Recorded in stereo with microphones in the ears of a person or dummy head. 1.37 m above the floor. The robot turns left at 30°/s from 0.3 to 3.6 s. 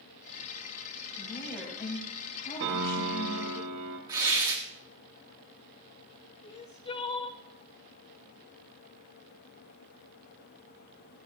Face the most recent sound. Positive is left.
turn(degrees=30)  # may be behind; listen again after turning